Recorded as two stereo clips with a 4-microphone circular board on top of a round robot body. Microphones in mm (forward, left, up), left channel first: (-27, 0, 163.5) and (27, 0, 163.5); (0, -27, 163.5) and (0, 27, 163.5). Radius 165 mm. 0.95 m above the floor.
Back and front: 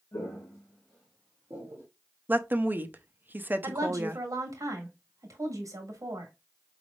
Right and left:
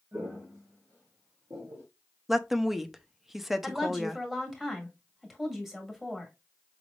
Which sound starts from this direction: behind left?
Footsteps, at 0.1 s.